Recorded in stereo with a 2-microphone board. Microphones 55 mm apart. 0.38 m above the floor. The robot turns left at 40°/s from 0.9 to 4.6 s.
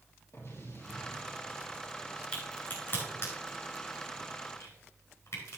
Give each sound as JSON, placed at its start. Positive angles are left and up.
{"t": 0.3, "sound": "an explosion", "azimuth_deg": 65, "distance_m": 3.5}
{"t": 2.3, "sound": "a crack", "side_deg": 20, "distance_m": 5.0}